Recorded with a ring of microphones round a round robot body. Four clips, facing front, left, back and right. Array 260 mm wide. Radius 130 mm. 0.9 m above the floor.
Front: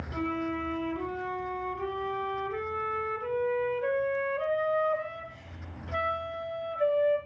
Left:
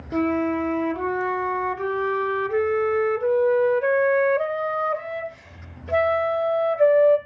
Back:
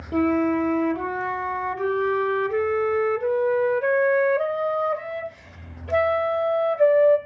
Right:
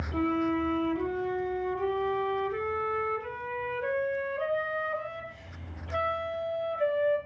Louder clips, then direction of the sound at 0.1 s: Left 6 dB, back 12 dB; 135° left.